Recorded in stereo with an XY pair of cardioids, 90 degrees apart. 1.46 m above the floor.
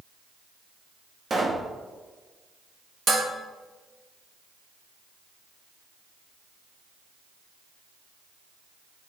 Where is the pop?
35° right, 1.2 m.